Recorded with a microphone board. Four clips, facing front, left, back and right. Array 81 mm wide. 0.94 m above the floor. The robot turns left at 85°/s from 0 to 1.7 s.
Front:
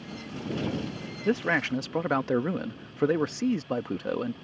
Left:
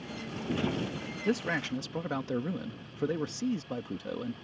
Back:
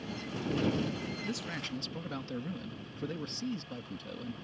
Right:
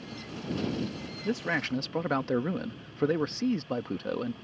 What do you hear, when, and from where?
1.2 s a man speaking: 15° left; by 4.3 s 25° right